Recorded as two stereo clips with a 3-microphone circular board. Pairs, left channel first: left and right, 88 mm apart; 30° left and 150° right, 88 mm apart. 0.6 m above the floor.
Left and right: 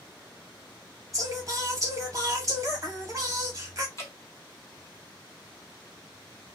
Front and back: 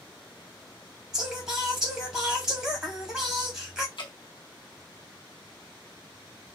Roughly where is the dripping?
Ahead left.